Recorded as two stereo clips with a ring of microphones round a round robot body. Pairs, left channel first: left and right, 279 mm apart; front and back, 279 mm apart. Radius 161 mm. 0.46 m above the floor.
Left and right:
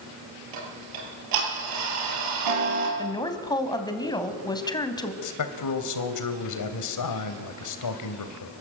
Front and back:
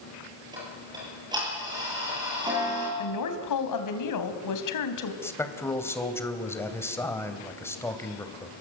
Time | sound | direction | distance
0.5 | ticking | 100° right | 8.5 m
3.0 | a woman speaking | 15° left | 3 m
5.2 | a man speaking | 80° left | 3 m